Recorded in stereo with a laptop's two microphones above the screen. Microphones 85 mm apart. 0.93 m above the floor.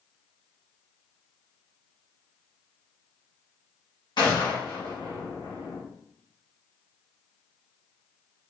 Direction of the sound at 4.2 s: 60° left (ahead or behind).